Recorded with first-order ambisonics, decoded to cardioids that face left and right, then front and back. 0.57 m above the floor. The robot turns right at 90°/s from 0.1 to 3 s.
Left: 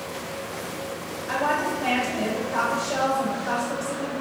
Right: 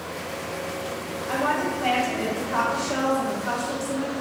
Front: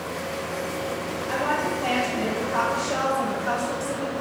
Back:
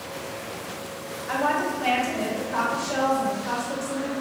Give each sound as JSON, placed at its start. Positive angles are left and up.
{"t": 1.3, "sound": "a woman speaking", "azimuth_deg": 160, "distance_m": 1.1}